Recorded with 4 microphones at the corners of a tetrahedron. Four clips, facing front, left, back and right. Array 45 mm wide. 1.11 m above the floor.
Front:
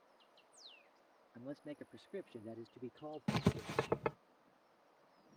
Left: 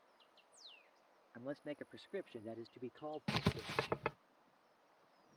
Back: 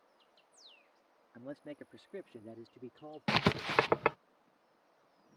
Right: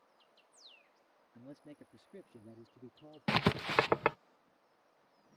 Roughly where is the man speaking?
Behind left.